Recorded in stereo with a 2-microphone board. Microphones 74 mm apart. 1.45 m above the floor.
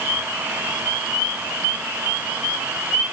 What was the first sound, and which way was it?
Only background noise.